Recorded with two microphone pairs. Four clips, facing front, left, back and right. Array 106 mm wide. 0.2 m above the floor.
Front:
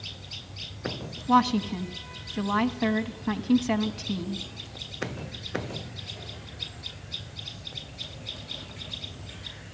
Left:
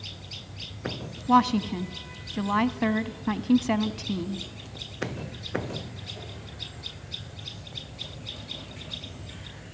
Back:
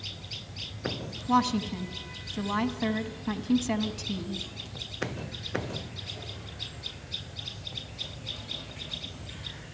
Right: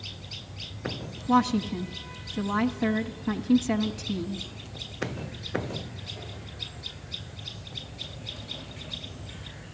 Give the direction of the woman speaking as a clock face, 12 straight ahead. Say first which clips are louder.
Left 2 dB, front 3 dB; 10 o'clock.